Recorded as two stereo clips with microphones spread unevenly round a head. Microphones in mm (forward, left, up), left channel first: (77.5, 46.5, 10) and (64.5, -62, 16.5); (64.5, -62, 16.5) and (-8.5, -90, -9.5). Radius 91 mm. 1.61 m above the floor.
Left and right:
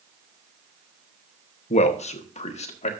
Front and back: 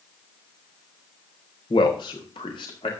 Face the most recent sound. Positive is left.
turn(degrees=65)